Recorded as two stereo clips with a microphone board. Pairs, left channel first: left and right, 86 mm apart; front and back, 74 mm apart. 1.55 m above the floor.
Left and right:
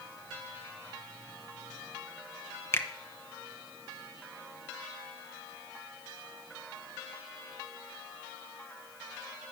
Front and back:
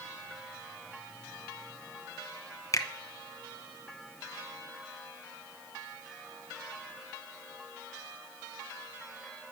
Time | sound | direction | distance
2.7 | a finger snap | 35° left | 0.8 m